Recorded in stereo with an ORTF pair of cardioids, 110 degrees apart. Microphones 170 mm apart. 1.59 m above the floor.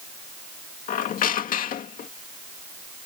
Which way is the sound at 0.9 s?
55° left.